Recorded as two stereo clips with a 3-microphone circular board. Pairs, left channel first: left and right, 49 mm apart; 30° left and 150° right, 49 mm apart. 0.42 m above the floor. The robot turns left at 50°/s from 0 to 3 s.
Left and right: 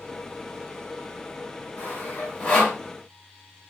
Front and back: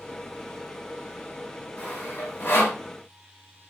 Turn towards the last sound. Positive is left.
turn(degrees=15)